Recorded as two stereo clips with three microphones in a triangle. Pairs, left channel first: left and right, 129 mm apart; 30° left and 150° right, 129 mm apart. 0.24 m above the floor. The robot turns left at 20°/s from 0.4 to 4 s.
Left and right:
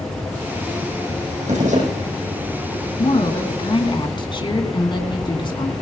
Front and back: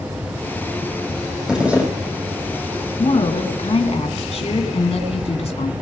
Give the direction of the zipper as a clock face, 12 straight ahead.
2 o'clock.